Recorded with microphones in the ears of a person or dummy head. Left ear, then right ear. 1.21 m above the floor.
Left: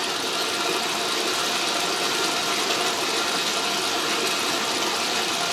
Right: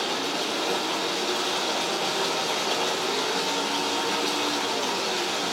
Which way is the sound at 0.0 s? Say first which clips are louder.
Left 2 dB; 75° left (ahead or behind).